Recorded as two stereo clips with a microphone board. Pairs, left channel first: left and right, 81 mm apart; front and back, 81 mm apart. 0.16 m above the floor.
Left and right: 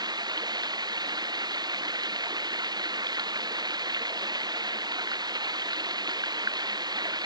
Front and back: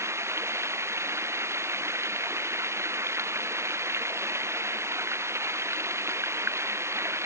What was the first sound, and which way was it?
Running water, 125° right.